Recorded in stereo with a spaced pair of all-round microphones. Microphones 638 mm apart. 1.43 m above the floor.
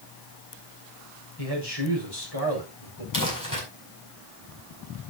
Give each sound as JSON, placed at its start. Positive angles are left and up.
{"t": 1.4, "sound": "a man speaking", "side_deg": 35, "distance_m": 5.5}
{"t": 3.1, "sound": "crumpling", "side_deg": 30, "distance_m": 5.0}